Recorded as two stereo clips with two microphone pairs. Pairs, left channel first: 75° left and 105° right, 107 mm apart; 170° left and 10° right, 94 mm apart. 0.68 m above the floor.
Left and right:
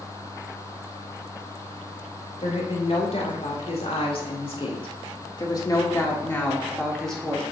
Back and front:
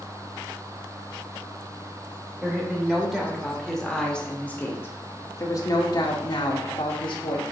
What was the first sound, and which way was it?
A woman speaking, 70° left.